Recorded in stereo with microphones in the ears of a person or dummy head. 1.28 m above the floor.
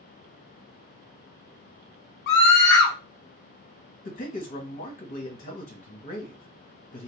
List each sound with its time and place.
2.3 s a scream: 50° left (ahead or behind), 1.1 m
4.0 s a man speaking: 35° left (ahead or behind), 1.3 m